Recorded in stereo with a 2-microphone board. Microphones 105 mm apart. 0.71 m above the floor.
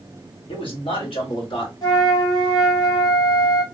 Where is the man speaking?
60° left (ahead or behind), 1.9 m; by 1.7 s 55° left (ahead or behind), 1.4 m.